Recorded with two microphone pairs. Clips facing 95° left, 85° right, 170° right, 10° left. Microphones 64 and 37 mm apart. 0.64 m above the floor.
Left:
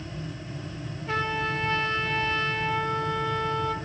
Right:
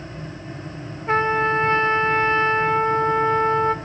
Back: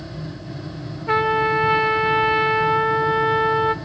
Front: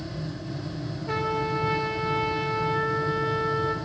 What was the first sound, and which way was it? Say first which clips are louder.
A trumpet: right 9 dB, back 9 dB; 135° right.